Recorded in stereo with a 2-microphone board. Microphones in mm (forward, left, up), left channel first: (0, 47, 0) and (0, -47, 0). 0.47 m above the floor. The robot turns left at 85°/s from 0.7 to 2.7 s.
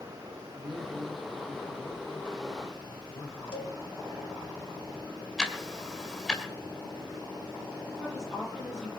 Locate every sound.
0.6 s a man speaking: 110° right, 1.6 m; by 3.4 s 80° left, 1.6 m
3.5 s a cowbell: 65° left (ahead or behind), 3 m
5.4 s ticking: 5° left (ahead or behind), 1.8 m
8.0 s a woman speaking: centre (ahead or behind), 9 m